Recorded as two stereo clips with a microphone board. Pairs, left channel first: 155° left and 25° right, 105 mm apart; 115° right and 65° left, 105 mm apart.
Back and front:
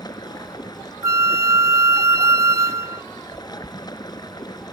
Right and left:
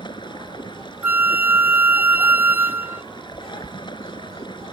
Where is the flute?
10° left.